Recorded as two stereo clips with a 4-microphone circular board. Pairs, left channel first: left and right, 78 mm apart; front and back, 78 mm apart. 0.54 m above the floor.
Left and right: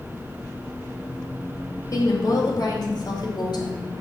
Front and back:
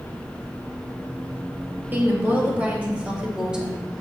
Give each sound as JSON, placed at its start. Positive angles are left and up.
{"t": 1.9, "sound": "a woman speaking", "azimuth_deg": 120, "distance_m": 3.0}